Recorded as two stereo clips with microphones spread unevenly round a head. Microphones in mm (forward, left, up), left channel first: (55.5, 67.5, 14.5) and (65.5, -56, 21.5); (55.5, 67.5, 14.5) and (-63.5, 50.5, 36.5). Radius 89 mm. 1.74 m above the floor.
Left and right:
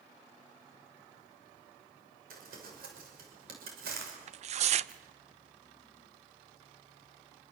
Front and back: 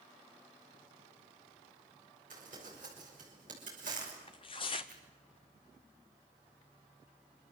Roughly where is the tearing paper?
Ahead right.